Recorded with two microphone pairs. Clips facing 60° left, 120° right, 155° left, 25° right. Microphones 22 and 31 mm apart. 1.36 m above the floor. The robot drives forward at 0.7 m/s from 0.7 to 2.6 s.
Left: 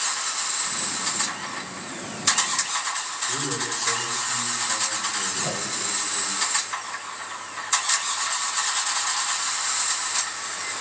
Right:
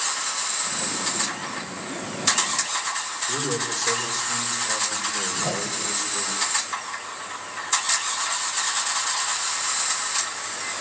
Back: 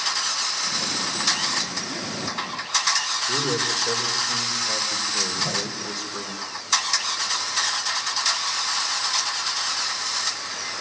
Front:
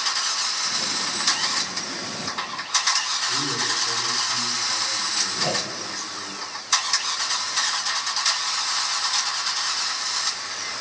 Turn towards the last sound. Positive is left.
turn(degrees=-45)